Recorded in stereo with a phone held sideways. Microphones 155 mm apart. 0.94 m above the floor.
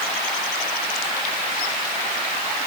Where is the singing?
I don't hear singing.